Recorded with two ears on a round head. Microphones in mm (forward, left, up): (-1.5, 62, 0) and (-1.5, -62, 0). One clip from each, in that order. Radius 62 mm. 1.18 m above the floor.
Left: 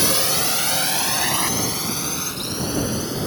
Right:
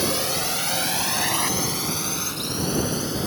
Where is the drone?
25° left (ahead or behind); by 3.3 s 5° right (ahead or behind).